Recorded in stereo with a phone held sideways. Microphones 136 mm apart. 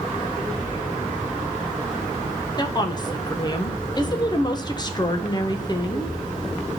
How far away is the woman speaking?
About 1.4 m.